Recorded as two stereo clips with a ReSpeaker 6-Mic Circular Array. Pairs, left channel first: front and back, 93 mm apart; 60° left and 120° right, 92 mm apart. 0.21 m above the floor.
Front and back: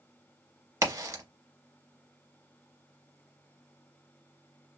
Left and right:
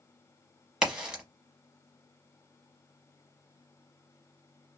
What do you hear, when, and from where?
0.8 s a crack: 165° left, 1.0 m